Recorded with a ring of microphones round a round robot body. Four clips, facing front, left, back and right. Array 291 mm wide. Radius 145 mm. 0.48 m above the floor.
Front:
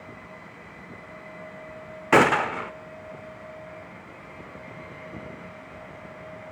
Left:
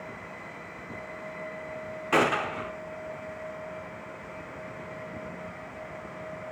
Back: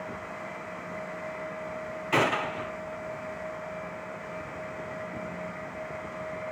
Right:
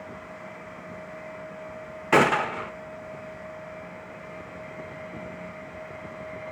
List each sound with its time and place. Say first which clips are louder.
2.1 s a gunshot: right 4 dB, front 8 dB; 25° right, 0.8 m